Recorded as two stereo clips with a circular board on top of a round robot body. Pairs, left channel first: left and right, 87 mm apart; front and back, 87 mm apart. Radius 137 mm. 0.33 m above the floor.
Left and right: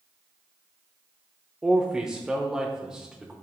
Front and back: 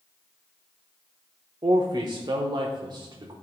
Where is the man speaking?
175° right, 1.1 m.